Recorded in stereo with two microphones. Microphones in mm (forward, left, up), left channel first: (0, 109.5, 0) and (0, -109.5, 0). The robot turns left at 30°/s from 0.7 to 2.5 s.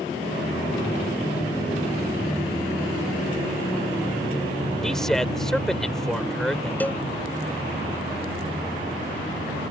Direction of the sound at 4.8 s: Centre (ahead or behind).